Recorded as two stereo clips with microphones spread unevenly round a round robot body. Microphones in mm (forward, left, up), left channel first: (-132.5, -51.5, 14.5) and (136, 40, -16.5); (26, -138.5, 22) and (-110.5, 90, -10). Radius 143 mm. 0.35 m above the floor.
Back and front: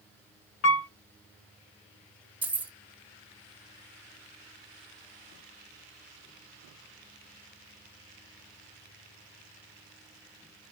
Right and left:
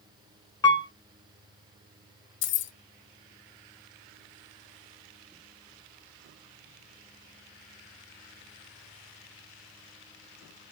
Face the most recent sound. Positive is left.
turn(degrees=-50)